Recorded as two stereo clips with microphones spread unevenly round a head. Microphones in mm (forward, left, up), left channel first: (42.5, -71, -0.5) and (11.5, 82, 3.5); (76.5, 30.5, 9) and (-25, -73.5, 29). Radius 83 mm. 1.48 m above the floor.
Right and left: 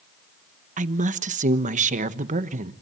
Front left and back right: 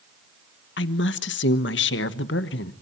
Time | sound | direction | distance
0.8 | a woman speaking | 60° left | 1.2 m